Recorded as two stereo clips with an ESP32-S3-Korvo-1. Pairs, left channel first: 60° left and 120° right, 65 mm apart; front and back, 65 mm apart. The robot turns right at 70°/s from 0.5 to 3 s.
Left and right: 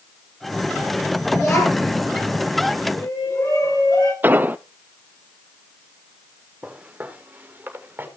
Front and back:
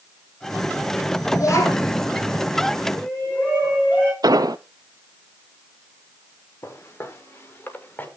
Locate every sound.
1.3 s a child speaking: 15° right, 2 m; by 2.0 s 30° left, 2 m
2.9 s a shout: 65° left, 6.5 m; by 4.1 s 70° left, 6.5 m
4.2 s an explosion: straight behind, 0.5 m
6.6 s footsteps: 50° right, 3.5 m; by 8.1 s 65° right, 4 m